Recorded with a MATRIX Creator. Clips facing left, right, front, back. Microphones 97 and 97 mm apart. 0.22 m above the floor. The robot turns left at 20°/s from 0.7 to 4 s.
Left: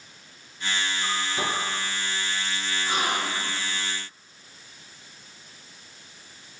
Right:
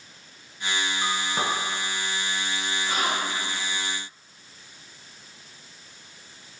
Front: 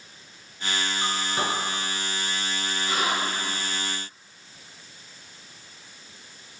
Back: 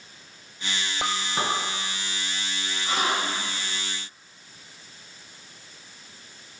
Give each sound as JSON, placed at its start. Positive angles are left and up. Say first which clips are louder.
{"t": 1.0, "sound": "a clink", "louder": "right 2 dB, back 2 dB", "azimuth_deg": -110, "distance_m": 1.4}
{"t": 2.8, "sound": "a gasp", "louder": "left 1 dB, back 1 dB", "azimuth_deg": 135, "distance_m": 1.9}